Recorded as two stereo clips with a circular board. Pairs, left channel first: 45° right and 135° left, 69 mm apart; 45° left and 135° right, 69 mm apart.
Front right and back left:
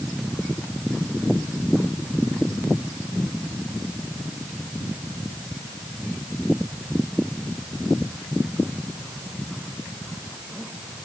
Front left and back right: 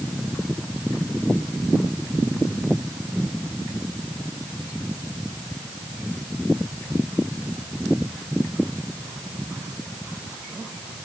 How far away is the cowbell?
No cowbell in this recording.